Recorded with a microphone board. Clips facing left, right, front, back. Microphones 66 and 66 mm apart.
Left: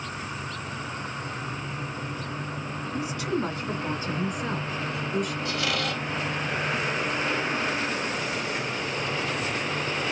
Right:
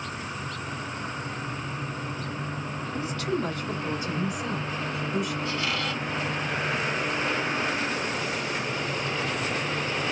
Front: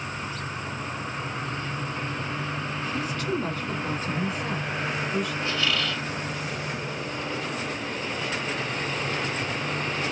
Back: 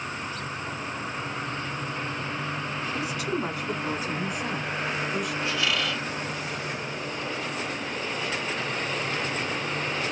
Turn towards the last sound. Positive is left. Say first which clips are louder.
# left 1 dB, even
turn(degrees=100)